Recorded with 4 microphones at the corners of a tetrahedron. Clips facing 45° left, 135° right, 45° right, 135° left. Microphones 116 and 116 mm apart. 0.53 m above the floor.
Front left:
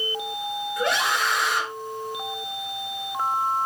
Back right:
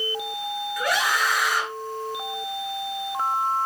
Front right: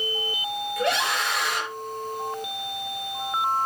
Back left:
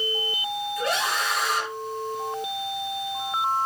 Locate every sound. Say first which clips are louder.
0.8 s a scream: even, front right 3 dB; 20° right, 8.5 m